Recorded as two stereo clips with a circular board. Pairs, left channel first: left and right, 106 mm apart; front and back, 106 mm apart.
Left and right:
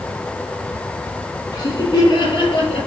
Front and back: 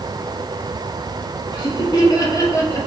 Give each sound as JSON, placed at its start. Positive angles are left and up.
{"t": 1.5, "sound": "laughter", "azimuth_deg": 40, "distance_m": 3.5}